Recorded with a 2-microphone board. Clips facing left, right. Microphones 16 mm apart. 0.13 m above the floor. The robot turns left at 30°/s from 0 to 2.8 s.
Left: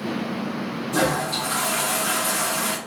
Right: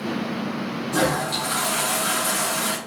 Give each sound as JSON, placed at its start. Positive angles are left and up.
{"t": 0.9, "sound": "a toilet flushing", "side_deg": -20, "distance_m": 1.8}